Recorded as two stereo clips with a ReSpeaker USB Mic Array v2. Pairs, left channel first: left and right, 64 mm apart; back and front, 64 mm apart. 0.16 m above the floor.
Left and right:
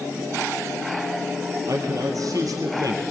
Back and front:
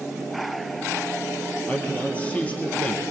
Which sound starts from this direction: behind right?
A man speaking, at 1.7 s.